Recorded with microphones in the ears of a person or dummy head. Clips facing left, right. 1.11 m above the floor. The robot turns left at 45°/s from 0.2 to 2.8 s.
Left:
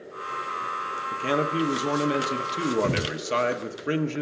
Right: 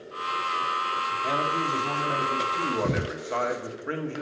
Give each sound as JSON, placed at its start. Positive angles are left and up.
{"t": 1.1, "sound": "a man speaking", "azimuth_deg": 130, "distance_m": 1.0}